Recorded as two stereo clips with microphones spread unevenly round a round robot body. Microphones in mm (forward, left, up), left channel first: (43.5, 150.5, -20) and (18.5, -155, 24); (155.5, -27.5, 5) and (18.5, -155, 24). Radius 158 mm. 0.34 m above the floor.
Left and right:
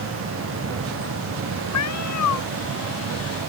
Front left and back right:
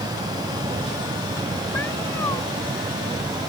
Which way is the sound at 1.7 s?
125° left.